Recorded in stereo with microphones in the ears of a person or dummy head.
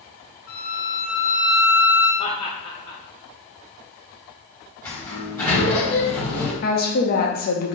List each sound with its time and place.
0.5 s a violin: 50° left (ahead or behind), 1.7 m
2.2 s laughter: 30° left (ahead or behind), 0.9 m
4.8 s a sliding door: 20° left (ahead or behind), 1.5 m
6.6 s a woman speaking: 40° left (ahead or behind), 0.6 m